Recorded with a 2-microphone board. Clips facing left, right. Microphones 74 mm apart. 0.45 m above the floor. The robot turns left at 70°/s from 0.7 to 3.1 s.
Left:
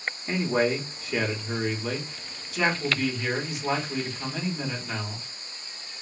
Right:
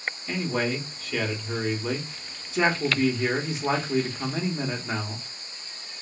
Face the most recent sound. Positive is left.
turn(degrees=-100)